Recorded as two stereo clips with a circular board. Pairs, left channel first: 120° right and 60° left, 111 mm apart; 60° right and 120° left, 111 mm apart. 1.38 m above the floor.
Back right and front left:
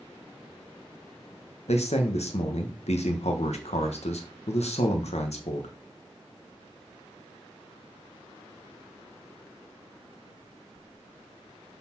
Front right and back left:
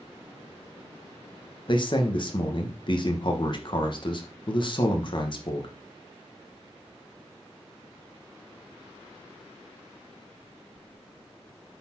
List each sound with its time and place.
1.7 s a man speaking: 105° right, 1.2 m